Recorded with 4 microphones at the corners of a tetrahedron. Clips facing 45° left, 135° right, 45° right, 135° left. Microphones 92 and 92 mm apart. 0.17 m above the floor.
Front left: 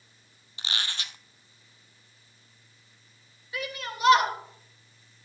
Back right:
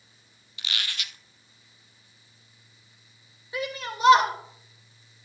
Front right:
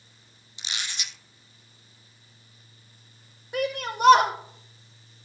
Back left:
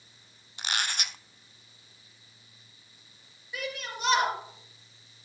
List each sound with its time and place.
0.6 s a squeak: 100° left, 0.5 m
3.5 s a shout: 70° right, 6 m